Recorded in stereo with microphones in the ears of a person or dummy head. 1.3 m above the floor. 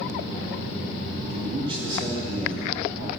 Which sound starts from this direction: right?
A man speaking, at 1.3 s.